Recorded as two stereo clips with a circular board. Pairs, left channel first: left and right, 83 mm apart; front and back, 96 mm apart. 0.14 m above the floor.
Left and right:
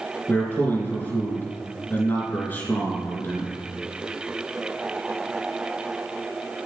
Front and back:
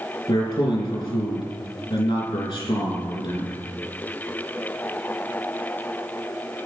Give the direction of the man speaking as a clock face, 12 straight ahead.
11 o'clock.